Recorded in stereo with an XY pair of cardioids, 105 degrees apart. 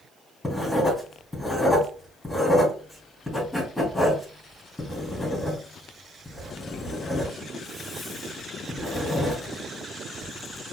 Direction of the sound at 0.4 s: 10° left.